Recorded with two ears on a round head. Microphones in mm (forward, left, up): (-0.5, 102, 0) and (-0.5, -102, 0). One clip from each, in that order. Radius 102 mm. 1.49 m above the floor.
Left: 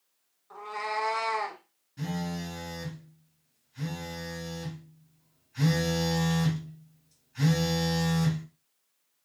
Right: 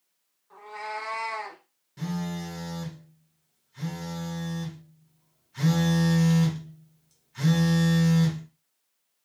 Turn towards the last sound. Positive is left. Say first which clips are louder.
# right 1 dB
turn(degrees=-30)  # may be behind; listen again after turning